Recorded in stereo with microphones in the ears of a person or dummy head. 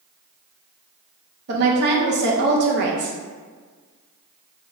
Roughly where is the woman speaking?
Right.